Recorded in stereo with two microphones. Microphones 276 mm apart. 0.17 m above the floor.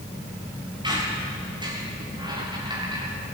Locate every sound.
0.8 s a squeak: 15° right (ahead or behind), 8.5 m